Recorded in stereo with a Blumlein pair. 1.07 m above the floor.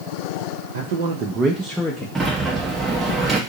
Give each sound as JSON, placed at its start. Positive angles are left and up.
{"t": 0.7, "sound": "a man speaking", "azimuth_deg": -65, "distance_m": 0.6}
{"t": 2.1, "sound": "a sliding door", "azimuth_deg": -15, "distance_m": 0.7}